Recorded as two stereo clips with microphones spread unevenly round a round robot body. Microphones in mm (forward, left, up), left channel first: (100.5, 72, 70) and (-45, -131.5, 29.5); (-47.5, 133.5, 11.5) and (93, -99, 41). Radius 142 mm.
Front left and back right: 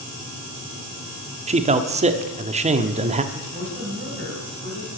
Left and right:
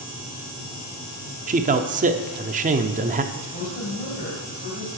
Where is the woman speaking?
Straight behind, 3 m.